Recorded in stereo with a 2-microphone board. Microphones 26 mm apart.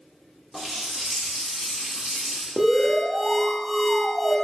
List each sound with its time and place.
0.5 s a running tap: 5° right (ahead or behind), 1.0 m
2.6 s an alarm: centre (ahead or behind), 0.8 m